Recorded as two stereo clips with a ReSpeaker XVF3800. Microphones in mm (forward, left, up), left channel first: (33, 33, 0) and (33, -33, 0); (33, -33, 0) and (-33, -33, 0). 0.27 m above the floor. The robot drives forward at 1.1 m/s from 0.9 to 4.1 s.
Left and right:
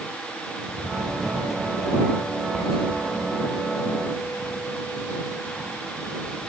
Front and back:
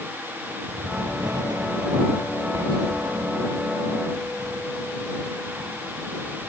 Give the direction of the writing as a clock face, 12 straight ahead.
6 o'clock.